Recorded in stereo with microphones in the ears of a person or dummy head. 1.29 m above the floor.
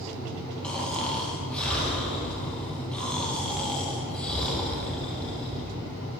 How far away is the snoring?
About 1.0 m.